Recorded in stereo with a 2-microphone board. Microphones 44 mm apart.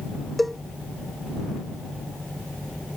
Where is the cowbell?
Centre (ahead or behind).